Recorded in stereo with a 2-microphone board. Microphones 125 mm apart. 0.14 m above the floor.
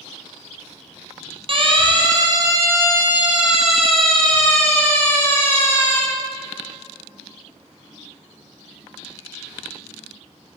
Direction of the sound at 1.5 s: 45° right (ahead or behind).